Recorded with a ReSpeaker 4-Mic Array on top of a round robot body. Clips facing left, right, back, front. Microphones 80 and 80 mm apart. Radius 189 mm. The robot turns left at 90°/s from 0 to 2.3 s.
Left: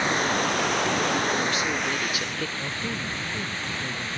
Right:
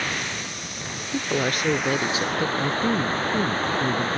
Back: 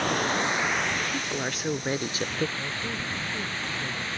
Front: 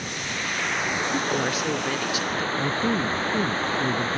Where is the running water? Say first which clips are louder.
Left 6 dB, back 6 dB; 160° left; by 4.2 s 45° right.